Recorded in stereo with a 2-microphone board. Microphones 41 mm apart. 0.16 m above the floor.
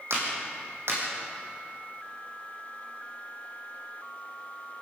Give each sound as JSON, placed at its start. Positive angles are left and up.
{"t": 0.1, "sound": "a clap", "side_deg": -75, "distance_m": 6.5}